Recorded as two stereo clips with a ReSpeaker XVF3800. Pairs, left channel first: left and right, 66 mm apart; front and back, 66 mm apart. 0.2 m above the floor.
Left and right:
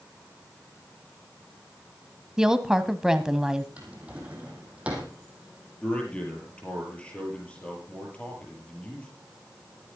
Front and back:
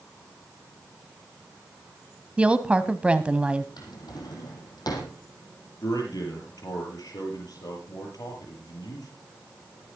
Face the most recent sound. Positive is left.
turn(degrees=15)